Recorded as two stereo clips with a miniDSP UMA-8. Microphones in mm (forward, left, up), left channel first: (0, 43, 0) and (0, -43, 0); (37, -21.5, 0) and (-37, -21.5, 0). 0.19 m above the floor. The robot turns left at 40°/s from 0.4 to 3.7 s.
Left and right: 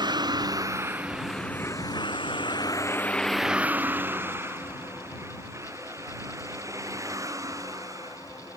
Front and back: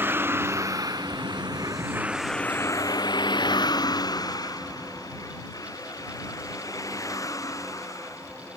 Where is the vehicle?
120° right; by 8.6 s 40° right.